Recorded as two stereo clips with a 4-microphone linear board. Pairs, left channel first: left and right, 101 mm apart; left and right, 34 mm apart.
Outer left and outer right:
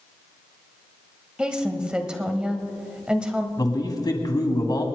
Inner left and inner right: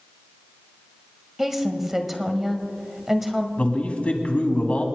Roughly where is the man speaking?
Left.